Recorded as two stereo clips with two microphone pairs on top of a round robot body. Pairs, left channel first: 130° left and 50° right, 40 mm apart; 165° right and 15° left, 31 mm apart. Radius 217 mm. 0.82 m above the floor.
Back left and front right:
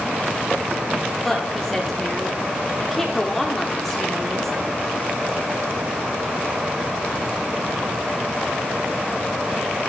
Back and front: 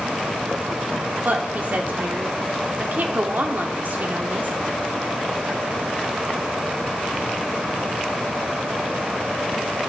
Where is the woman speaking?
50° left, 2.5 m.